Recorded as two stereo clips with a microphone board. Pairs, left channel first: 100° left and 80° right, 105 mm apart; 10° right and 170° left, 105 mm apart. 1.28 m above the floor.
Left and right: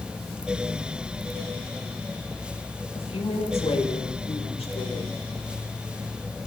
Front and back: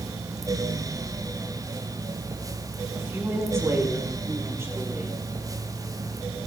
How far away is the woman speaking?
About 4.5 m.